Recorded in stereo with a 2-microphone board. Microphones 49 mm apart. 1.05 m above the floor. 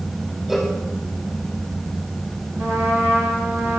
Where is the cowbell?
5° right (ahead or behind), 4.5 m.